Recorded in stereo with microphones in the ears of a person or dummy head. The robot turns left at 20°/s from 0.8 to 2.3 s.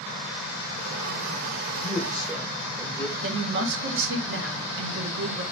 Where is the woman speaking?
65° right (ahead or behind), 0.9 m.